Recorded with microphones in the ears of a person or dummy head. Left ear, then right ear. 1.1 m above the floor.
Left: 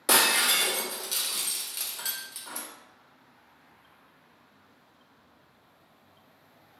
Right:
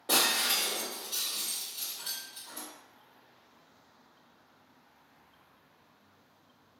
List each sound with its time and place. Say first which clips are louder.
0.1 s breaking glass: left 5 dB; 60° left (ahead or behind), 0.6 m